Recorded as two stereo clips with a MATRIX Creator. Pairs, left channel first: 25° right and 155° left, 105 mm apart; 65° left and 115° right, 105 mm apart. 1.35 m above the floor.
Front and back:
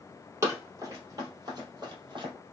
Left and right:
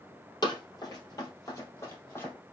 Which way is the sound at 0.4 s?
105° left.